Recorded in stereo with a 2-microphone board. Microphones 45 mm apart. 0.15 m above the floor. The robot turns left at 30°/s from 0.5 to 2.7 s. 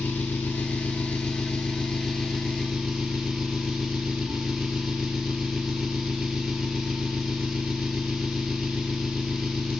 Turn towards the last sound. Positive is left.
turn(degrees=-10)